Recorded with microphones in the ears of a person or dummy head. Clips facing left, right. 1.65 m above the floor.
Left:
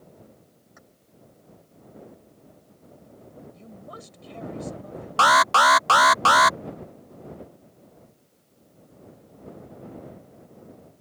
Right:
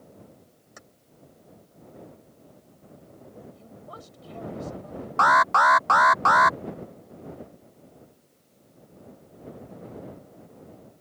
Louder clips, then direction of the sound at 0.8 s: Right 4 dB; 60° right (ahead or behind).